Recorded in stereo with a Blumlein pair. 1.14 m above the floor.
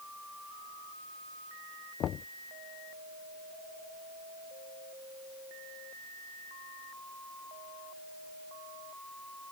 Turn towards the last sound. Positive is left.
turn(degrees=30)